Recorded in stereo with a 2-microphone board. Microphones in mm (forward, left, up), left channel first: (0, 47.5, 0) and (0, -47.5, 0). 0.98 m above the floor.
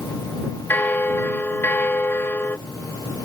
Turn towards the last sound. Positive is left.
turn(degrees=20)  # may be behind; listen again after turning